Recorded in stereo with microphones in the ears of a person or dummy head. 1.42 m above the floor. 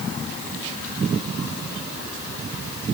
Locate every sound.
Only background noise.